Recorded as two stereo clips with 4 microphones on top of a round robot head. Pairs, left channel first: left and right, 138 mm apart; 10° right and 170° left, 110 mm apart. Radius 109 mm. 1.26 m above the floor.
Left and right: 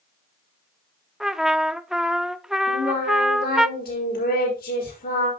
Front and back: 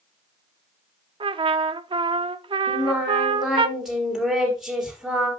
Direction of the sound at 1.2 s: 175° right.